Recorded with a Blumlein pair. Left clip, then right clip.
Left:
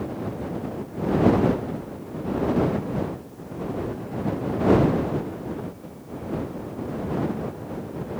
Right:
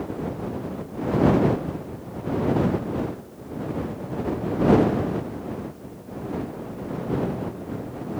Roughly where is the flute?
No flute in this recording.